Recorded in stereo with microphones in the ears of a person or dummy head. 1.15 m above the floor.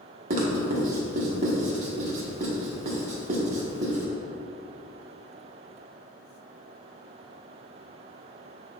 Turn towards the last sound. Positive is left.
turn(degrees=-40)  # may be behind; listen again after turning